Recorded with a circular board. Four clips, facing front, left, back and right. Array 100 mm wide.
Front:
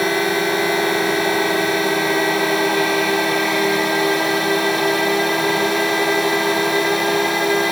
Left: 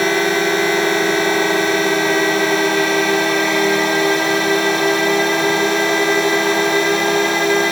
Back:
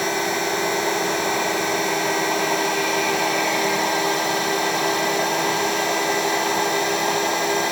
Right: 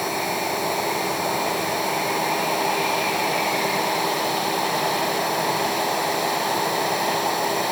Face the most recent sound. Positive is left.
turn(degrees=70)